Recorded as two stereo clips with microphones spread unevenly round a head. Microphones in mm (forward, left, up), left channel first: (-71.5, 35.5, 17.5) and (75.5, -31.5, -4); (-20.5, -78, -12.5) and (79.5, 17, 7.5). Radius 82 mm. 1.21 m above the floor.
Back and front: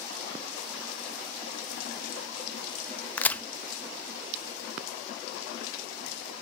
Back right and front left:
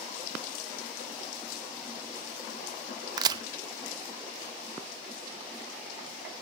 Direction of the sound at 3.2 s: 85° left.